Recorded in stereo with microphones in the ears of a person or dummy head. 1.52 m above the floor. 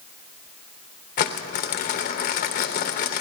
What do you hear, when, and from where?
1.2 s crumpling: 35° left (ahead or behind), 0.9 m